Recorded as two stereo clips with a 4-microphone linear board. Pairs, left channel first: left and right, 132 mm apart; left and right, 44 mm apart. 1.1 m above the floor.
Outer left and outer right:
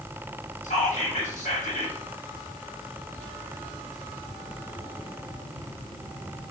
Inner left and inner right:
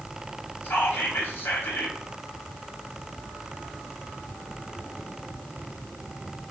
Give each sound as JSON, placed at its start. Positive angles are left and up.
{"t": 0.6, "sound": "whispering", "side_deg": 75, "distance_m": 0.7}